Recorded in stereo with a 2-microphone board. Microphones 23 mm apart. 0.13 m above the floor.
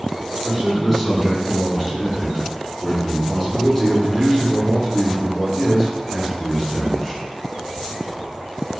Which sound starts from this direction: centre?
A man speaking, at 0.5 s.